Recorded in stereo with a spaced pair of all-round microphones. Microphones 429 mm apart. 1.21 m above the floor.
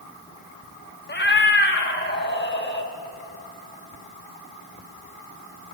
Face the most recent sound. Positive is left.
turn(degrees=25)  # may be behind; listen again after turning